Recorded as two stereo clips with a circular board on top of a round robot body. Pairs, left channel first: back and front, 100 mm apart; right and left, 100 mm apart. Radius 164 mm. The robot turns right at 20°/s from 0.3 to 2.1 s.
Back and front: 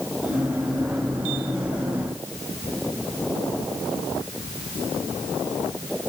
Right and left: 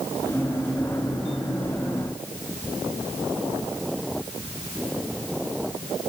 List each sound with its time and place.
Only background noise.